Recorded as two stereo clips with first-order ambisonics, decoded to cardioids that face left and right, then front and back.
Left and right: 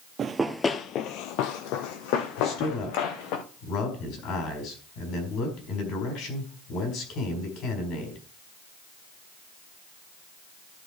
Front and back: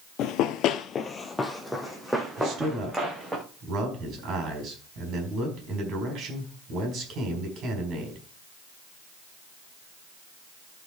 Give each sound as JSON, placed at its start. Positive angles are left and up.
{"t": 0.2, "sound": "running footsteps", "azimuth_deg": -30, "distance_m": 0.8}
{"t": 2.4, "sound": "a man speaking", "azimuth_deg": 130, "distance_m": 4.5}